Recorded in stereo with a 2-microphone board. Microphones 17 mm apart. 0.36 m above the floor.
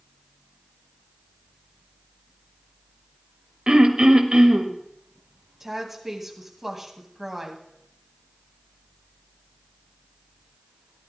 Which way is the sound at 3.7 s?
50° right (ahead or behind).